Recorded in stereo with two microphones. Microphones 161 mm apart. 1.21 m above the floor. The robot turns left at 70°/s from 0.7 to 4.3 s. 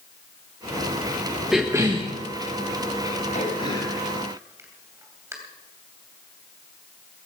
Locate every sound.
1.5 s a cough: straight ahead, 1.3 m; by 2.1 s 45° right, 1.3 m
3.3 s throat clearing: 50° left (ahead or behind), 3 m; by 5.3 s 15° right (ahead or behind), 3 m